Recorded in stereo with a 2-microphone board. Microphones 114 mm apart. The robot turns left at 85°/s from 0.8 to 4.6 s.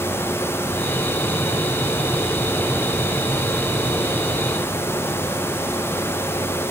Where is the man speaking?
I don't hear a man speaking.